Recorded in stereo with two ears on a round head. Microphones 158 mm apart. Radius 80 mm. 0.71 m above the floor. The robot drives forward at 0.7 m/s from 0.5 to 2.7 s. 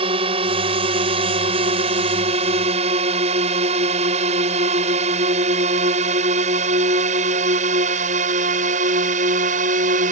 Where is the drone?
30° right (ahead or behind); by 10.1 s 45° right (ahead or behind).